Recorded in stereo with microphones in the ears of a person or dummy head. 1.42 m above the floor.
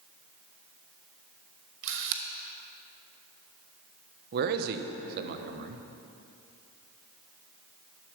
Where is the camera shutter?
65° right (ahead or behind), 1.1 m.